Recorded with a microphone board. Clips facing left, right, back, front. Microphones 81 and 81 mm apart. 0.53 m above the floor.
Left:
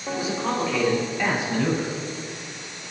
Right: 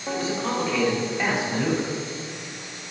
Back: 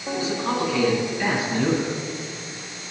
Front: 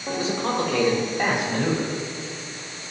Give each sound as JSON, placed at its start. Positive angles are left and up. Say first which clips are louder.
{"t": 0.1, "sound": "a man speaking", "louder": "even, even", "azimuth_deg": 15, "distance_m": 2.5}